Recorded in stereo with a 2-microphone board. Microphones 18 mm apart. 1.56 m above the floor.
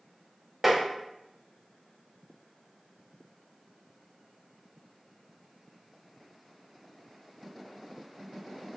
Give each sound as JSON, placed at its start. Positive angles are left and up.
{"t": 0.6, "sound": "tapping", "side_deg": -15, "distance_m": 1.1}